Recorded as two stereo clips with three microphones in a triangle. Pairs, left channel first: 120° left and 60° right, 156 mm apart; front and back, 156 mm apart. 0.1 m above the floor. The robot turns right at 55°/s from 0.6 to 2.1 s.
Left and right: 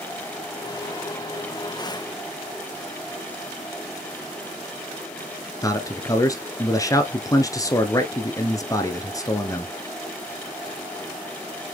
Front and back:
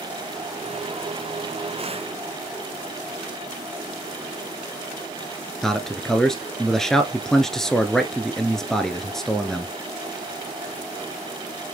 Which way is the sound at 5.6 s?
80° left.